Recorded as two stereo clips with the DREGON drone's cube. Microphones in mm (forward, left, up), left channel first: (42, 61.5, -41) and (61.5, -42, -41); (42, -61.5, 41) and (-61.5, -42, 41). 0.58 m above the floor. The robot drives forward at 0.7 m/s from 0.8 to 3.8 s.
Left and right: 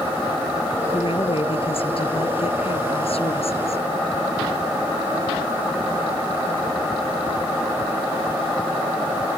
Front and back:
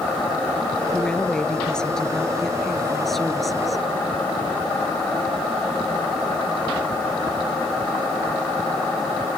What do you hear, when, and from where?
0.9 s a woman speaking: 70° left; by 3.9 s 80° left